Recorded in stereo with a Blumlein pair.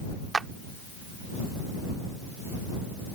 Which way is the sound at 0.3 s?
10° right.